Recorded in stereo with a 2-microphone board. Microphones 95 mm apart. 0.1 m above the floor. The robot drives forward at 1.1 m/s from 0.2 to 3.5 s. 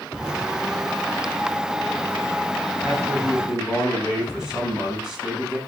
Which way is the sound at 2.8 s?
10° right (ahead or behind).